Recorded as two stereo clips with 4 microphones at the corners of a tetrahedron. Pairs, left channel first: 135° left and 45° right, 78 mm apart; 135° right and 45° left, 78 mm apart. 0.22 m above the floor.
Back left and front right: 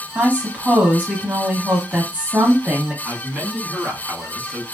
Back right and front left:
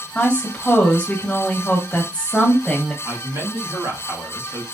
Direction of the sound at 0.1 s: 85° right.